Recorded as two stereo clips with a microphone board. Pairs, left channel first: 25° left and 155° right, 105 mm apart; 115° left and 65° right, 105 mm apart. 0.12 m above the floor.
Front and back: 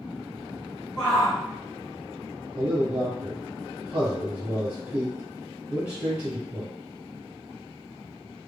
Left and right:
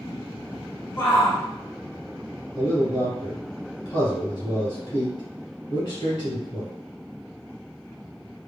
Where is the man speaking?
135° left, 1.7 m.